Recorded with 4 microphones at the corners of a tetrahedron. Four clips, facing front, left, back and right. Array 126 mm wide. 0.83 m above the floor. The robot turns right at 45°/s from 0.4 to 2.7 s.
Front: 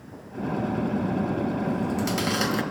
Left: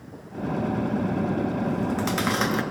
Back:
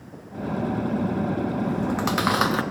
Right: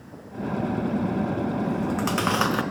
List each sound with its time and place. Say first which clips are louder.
1.7 s chewing: even, back 2 dB; 170° left, 0.8 m; by 2.6 s 145° right, 0.8 m